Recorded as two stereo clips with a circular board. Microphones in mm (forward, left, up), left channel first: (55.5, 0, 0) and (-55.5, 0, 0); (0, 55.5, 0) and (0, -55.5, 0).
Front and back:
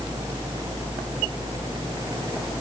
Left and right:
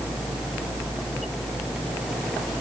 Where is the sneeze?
I don't hear a sneeze.